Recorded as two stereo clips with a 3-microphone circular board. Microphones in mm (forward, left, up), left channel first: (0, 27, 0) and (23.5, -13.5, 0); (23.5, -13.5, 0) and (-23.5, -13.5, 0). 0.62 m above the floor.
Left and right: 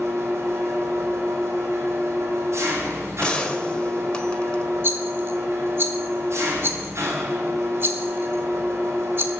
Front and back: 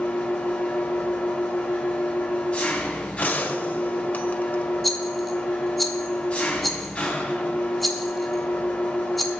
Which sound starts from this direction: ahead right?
An engine running, at 0.0 s.